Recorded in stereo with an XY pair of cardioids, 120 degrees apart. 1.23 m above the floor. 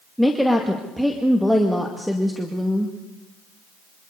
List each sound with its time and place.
0.2 s a woman speaking: straight ahead, 2 m